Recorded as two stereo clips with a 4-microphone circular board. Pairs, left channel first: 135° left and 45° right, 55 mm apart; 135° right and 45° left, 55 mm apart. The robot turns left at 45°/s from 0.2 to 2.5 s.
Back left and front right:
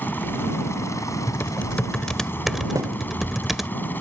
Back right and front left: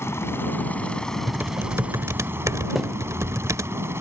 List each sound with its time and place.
0.0 s a helicopter: 170° right; by 4.0 s 85° left
1.3 s typing on a keyboard: 95° left; by 3.7 s 40° left
2.8 s a thud: 40° right